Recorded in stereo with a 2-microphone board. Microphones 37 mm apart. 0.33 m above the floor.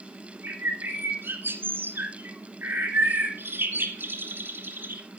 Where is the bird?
70° right (ahead or behind), 1.4 m.